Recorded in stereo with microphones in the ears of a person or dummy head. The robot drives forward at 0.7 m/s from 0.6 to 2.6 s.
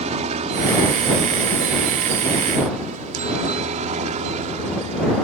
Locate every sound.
0.0 s a helicopter: 35° right (ahead or behind)